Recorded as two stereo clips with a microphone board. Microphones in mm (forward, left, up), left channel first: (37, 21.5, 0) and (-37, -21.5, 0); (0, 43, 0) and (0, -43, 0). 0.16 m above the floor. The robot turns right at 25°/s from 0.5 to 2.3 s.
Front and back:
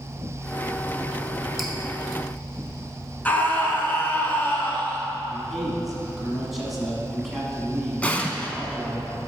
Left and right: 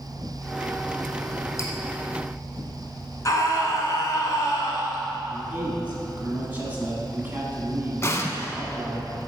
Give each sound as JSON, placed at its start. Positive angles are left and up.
{"t": 1.6, "sound": "dripping", "azimuth_deg": 120, "distance_m": 1.0}
{"t": 3.2, "sound": "a scream", "azimuth_deg": 90, "distance_m": 1.4}
{"t": 5.3, "sound": "a man speaking", "azimuth_deg": -65, "distance_m": 1.1}
{"t": 8.0, "sound": "an explosion", "azimuth_deg": 90, "distance_m": 0.6}